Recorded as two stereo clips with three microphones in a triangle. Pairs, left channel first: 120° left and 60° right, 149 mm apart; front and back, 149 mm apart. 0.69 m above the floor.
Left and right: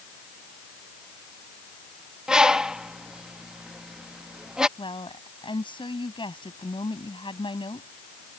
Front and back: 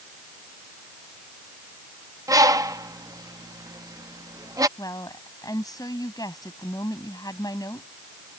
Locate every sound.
2.3 s a bird: 140° right
4.8 s a woman speaking: 65° left